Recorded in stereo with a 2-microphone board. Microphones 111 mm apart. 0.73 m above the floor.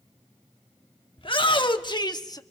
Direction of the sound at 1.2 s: 50° left (ahead or behind).